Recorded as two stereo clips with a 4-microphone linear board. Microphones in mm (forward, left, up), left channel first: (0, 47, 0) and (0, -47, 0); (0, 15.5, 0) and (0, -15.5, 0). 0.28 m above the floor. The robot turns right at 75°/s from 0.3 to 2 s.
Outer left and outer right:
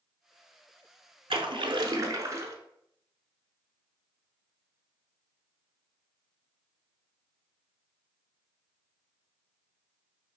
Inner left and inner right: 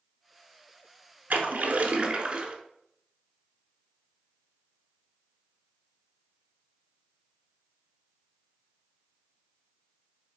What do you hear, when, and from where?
1.3 s a splash: 90° right, 0.8 m; by 2.5 s 40° right, 0.8 m